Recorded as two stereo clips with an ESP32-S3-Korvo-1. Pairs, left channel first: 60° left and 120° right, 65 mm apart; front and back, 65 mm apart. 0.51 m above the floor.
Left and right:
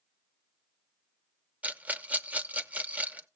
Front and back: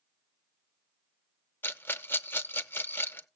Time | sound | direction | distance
1.6 | a rattle | 55° right | 0.6 m